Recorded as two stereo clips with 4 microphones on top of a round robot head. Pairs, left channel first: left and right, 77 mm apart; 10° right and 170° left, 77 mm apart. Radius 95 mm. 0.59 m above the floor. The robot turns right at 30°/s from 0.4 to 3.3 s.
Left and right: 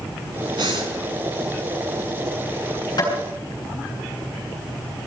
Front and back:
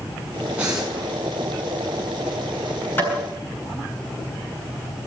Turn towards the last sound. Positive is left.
turn(degrees=65)